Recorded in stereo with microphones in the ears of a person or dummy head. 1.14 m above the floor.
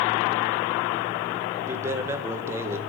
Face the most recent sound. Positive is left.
turn(degrees=-15)  # may be behind; listen again after turning